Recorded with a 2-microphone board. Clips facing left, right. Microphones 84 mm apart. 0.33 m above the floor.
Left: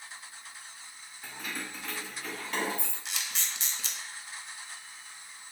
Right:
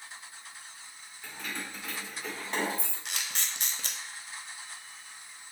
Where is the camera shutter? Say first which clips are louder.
Right 1 dB; 50° right (ahead or behind), 0.6 m.